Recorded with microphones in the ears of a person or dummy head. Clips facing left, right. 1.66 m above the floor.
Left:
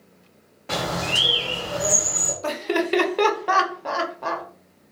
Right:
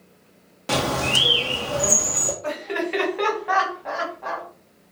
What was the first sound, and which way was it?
A bird, 45° right (ahead or behind).